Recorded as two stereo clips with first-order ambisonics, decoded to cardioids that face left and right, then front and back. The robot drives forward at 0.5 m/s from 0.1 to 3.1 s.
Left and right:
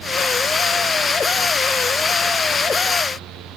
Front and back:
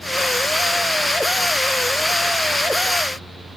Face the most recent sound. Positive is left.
No sound to turn to.